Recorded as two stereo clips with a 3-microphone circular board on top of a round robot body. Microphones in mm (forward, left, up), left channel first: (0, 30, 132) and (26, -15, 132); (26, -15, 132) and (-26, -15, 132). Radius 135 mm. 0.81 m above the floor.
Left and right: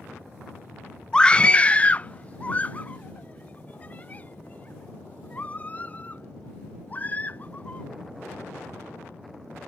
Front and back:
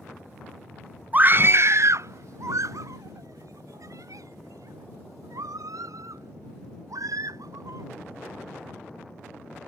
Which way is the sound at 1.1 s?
Straight behind.